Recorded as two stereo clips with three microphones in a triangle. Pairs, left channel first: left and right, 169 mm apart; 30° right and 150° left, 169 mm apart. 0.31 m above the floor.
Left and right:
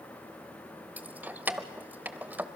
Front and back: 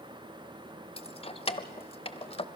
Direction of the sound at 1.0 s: 20° right.